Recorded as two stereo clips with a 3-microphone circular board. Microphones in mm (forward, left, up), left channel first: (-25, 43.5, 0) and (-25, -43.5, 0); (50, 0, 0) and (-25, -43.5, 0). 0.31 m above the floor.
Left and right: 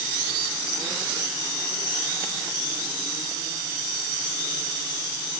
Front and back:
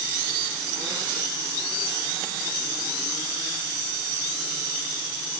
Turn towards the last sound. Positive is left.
No sound to turn to.